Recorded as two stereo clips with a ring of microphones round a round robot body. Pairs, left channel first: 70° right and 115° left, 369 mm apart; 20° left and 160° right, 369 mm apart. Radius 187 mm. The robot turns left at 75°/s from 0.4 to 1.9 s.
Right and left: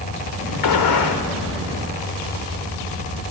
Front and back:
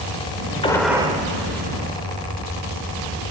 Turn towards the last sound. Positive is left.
turn(degrees=-145)